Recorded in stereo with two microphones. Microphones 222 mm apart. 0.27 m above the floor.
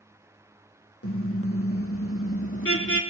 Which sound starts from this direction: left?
A car horn, at 1.0 s.